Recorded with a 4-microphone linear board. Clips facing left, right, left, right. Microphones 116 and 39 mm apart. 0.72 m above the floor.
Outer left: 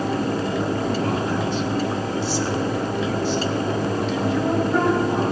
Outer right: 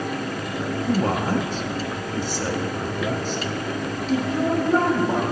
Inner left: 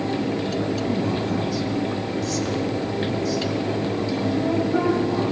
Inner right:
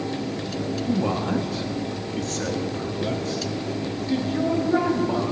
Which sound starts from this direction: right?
A man speaking, at 0.9 s.